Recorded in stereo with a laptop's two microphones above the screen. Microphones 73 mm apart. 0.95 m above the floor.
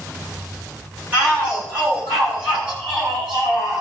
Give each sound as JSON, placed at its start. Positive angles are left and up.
{"t": 1.1, "sound": "a shout", "side_deg": -20, "distance_m": 6.5}